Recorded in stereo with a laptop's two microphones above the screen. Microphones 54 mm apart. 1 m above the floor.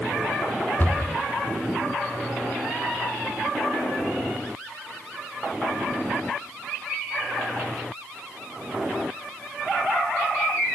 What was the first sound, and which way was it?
A cupboard door, 35° left (ahead or behind).